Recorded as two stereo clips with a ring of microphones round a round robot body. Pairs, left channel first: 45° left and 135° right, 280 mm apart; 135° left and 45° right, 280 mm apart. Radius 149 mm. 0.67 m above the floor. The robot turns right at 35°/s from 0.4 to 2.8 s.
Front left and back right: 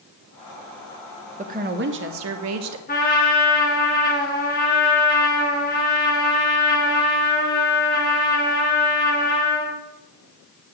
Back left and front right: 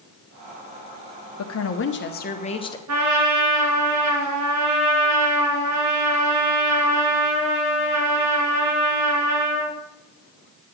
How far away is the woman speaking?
About 1.0 m.